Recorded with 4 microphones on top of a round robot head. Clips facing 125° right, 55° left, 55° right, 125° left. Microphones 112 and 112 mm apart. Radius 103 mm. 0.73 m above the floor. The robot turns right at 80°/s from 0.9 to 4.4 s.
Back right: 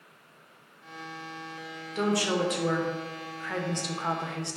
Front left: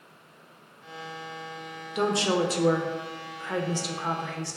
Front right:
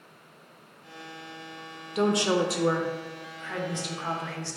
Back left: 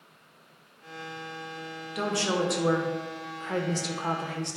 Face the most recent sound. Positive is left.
turn(degrees=180)